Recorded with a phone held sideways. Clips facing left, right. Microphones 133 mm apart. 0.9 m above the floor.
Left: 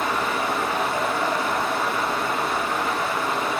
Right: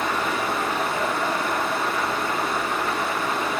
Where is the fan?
Centre (ahead or behind), 3 m.